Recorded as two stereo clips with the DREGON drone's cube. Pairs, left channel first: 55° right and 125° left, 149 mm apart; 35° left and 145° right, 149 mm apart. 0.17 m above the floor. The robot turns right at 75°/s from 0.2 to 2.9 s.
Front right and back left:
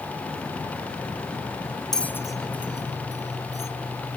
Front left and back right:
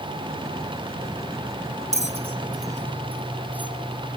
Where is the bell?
145° right, 1.0 m; by 3.7 s 70° right, 1.0 m.